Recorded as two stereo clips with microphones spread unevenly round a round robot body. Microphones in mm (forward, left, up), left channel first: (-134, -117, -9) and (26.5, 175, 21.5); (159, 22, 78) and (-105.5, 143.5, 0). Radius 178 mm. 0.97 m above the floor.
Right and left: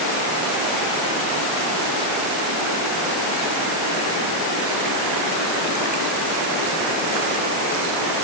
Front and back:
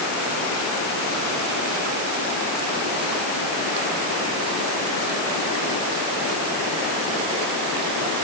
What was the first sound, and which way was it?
Only background noise.